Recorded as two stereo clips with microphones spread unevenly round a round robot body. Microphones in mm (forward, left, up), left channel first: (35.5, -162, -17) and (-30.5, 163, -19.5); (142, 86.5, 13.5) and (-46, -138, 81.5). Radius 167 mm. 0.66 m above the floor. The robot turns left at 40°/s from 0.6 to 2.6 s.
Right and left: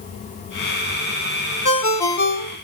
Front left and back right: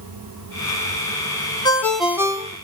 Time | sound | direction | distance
1.6 | a ringtone | 20° right | 1.1 m